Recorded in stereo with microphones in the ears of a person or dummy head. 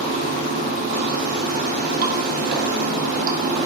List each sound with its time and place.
0.0 s running water: 45° right (ahead or behind), 0.7 m